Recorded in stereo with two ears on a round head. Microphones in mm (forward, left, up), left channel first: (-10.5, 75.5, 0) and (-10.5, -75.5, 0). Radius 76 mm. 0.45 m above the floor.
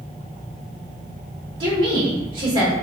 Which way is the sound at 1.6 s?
30° right (ahead or behind).